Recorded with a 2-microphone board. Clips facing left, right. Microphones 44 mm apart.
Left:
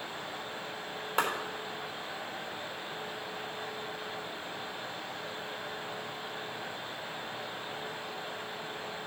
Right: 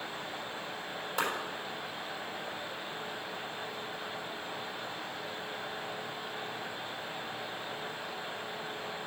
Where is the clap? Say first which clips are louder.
Left 3 dB; 45° left (ahead or behind), 3.5 m.